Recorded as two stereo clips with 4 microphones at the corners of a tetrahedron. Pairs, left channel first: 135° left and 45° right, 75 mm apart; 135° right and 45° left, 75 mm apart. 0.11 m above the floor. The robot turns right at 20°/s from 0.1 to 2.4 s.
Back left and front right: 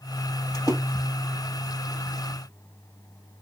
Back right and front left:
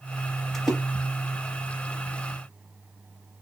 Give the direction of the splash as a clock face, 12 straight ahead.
7 o'clock.